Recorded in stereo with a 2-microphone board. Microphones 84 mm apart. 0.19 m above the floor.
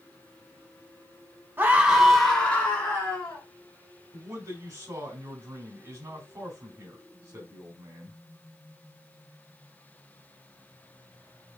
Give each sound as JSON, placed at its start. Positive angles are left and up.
{"t": 1.6, "sound": "a scream", "side_deg": -25, "distance_m": 1.1}
{"t": 4.1, "sound": "a man speaking", "side_deg": -30, "distance_m": 1.6}